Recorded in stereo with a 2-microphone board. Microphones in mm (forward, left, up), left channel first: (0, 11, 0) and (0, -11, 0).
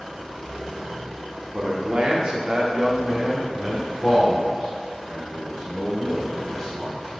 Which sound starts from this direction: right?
A man speaking, at 1.5 s.